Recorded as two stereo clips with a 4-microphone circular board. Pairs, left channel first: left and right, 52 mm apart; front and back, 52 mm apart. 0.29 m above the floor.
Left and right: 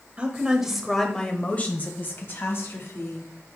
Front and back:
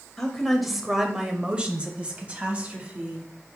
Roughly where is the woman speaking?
Right.